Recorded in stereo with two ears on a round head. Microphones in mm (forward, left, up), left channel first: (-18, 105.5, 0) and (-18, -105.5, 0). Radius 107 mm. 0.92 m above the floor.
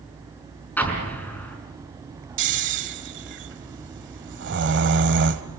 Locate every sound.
0.8 s an explosion: 5° left (ahead or behind), 5 m
2.4 s snoring: 45° right (ahead or behind), 1.3 m